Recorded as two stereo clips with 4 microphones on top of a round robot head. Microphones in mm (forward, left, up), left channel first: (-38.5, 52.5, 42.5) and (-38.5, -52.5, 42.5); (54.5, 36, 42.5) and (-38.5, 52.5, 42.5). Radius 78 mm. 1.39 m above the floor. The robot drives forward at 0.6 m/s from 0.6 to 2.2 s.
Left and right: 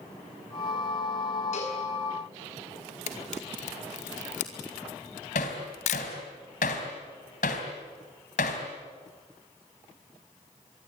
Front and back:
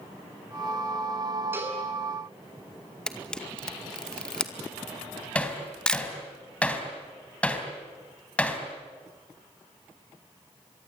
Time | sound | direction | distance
1.5 | a cowbell | 105° left | 8.5 m
3.1 | a camera shutter | 70° left | 2 m
5.3 | hammering | 65° left | 3.5 m